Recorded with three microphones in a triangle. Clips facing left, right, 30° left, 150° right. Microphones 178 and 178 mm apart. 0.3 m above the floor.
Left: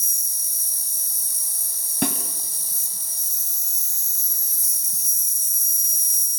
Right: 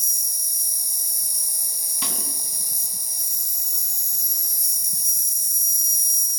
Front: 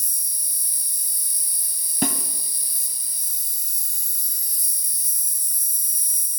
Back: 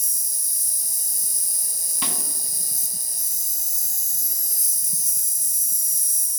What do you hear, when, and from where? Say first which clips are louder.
0.0 s an insect: right 2 dB, back 6 dB; 160° right, 1.0 m
2.0 s a snare drum: left 12 dB, front 9 dB; 65° left, 2.5 m